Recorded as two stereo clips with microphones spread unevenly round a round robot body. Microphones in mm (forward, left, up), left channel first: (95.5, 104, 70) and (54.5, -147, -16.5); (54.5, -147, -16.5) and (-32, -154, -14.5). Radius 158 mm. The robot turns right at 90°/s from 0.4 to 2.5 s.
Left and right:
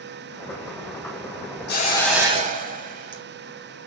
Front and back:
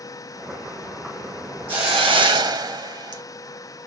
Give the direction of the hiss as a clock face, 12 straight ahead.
7 o'clock.